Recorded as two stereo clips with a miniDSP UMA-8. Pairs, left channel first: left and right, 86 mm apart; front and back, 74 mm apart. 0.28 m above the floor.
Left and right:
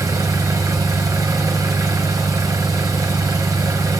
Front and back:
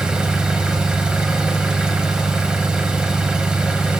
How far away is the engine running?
About 0.8 m.